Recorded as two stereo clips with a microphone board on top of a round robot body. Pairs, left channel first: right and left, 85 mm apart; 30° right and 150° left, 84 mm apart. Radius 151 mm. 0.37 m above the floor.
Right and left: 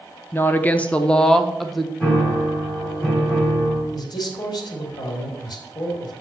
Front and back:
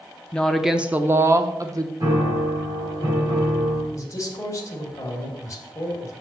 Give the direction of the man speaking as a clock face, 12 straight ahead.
3 o'clock.